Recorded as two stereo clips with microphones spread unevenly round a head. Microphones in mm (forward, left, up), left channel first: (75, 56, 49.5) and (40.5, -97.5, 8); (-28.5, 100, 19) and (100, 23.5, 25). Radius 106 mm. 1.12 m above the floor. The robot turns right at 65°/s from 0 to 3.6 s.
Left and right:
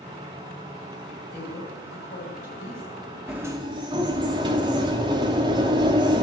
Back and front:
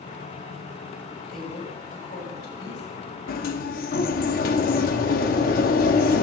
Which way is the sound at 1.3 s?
60° left.